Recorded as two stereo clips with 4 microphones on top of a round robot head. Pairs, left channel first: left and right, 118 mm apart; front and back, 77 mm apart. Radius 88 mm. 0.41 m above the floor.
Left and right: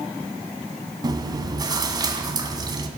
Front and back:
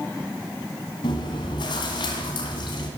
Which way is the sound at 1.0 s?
35° right.